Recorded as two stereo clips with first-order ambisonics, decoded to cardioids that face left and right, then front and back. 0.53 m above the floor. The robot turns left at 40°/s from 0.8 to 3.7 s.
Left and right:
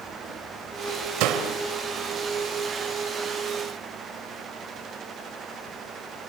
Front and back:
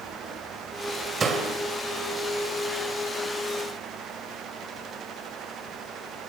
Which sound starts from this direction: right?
A door slam, at 1.2 s.